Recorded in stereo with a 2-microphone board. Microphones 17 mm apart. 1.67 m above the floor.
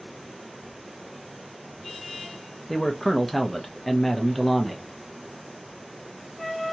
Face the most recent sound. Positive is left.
turn(degrees=15)  # may be behind; listen again after turning